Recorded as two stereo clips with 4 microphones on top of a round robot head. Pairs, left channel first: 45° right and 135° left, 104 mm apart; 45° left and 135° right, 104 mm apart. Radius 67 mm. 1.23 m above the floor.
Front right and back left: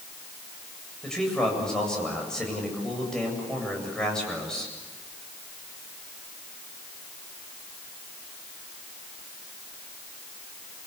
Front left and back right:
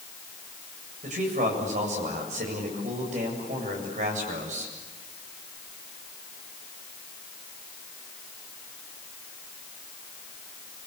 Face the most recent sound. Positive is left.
turn(degrees=-125)